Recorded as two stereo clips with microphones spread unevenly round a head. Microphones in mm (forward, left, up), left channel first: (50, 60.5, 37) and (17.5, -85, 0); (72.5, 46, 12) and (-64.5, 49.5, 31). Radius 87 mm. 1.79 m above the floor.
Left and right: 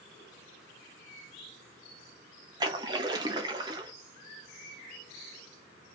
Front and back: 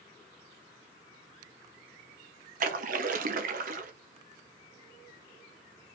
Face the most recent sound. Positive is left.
turn(degrees=-175)